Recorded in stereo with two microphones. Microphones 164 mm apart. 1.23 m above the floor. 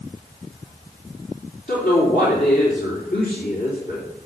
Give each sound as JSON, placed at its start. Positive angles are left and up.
{"t": 1.7, "sound": "a woman speaking", "side_deg": 70, "distance_m": 4.0}